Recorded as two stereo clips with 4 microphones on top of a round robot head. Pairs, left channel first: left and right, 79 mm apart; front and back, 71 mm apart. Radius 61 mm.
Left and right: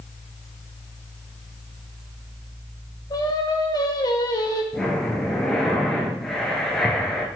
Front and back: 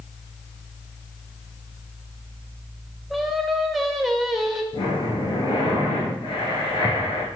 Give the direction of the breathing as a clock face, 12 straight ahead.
12 o'clock.